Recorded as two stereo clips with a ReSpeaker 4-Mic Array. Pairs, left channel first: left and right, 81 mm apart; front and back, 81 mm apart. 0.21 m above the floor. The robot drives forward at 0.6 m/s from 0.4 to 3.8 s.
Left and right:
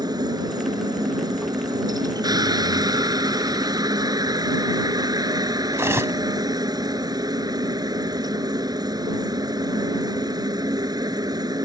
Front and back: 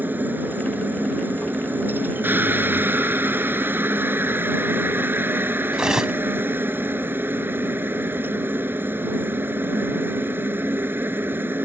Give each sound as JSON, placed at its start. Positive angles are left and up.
{"t": 0.0, "sound": "a helicopter", "azimuth_deg": -115}
{"t": 5.7, "sound": "cutlery clinking", "azimuth_deg": -105}